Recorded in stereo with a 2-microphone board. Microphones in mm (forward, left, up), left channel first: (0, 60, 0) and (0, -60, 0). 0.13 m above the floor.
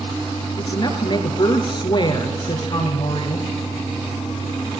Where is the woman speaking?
40° left (ahead or behind), 2 m.